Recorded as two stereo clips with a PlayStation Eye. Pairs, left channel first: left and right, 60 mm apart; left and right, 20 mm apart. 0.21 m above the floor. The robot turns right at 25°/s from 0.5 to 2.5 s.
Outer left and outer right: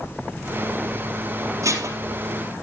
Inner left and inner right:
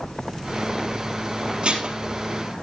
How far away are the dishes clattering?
About 3 m.